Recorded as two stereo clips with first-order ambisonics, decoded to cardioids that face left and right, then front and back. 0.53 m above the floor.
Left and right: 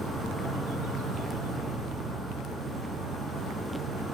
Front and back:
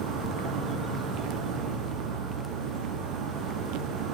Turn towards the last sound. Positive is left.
turn(degrees=-165)